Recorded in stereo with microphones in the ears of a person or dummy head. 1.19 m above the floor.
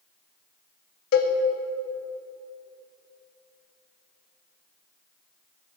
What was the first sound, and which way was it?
A cowbell, 55° left (ahead or behind).